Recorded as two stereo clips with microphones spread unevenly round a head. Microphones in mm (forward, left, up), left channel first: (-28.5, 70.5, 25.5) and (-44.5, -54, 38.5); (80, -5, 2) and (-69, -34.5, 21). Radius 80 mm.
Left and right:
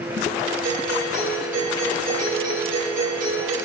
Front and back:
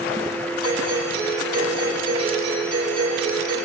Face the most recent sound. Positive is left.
turn(degrees=-110)